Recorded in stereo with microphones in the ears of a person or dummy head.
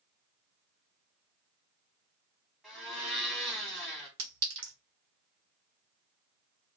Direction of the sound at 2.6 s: Centre (ahead or behind).